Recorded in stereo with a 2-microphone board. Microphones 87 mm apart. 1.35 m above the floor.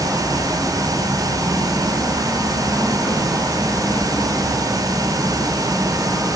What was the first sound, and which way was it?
Only background noise.